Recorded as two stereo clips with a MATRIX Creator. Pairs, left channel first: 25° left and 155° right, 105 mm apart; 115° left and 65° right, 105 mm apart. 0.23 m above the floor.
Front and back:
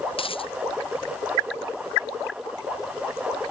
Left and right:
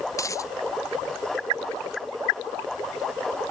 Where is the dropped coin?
55° left.